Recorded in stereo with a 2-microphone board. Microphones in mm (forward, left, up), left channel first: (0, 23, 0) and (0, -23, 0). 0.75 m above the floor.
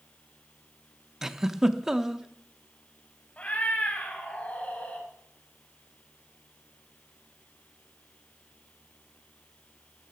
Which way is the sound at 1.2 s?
10° right (ahead or behind).